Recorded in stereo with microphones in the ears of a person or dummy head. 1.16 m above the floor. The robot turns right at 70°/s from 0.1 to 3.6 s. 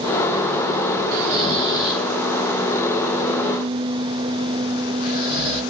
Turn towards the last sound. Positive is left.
turn(degrees=50)  # may be behind; listen again after turning